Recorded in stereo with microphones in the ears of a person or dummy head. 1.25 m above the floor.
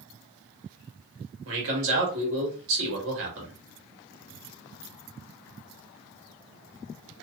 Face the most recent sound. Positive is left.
turn(degrees=-70)  # may be behind; listen again after turning